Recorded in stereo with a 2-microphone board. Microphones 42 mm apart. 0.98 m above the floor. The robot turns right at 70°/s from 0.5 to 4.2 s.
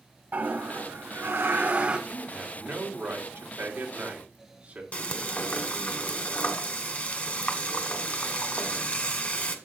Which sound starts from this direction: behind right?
A toilet flushing, at 0.3 s.